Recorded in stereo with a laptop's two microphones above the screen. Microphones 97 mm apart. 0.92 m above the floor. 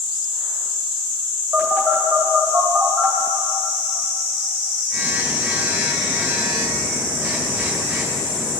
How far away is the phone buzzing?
About 2 m.